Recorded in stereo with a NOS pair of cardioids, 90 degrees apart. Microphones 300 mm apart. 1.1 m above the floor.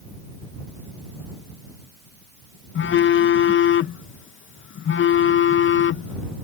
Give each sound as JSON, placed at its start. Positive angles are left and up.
{"t": 2.8, "sound": "a phone buzzing", "azimuth_deg": 45}